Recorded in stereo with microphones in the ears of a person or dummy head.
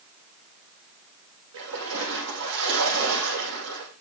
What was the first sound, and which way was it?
A splash, 85° right.